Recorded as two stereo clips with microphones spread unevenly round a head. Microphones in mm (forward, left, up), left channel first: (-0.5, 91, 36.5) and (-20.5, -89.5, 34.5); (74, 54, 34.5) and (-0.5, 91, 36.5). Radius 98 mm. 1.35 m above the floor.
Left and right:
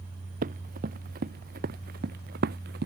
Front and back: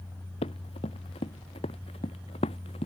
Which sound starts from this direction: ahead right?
Running footsteps, at 0.4 s.